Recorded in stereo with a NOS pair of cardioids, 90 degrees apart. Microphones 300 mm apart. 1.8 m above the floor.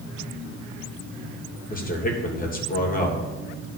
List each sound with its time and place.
1.7 s a man speaking: 30° left, 2.5 m